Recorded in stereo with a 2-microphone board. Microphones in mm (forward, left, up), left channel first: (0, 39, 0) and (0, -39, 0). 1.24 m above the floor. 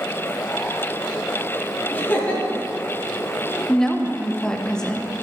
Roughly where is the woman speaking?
Centre.